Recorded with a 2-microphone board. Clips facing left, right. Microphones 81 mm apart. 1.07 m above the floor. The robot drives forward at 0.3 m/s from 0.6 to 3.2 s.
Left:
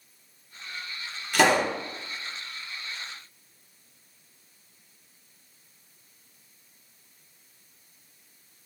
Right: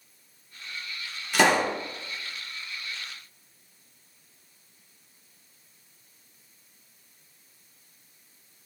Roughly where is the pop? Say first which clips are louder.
Even; centre.